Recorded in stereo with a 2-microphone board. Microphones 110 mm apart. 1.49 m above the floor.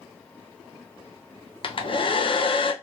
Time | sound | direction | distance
1.6 | a hair dryer | 50° left (ahead or behind) | 0.5 m